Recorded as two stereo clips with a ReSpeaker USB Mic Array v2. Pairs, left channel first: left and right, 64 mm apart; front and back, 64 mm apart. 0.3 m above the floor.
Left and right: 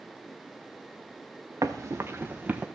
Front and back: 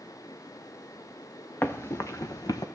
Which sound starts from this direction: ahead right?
Running footsteps, at 1.6 s.